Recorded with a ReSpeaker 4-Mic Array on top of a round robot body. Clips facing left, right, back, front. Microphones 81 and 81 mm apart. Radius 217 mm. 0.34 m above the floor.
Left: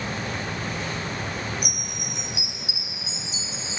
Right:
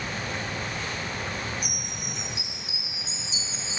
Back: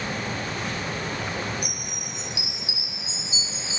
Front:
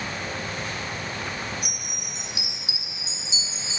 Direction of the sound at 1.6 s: 65° left.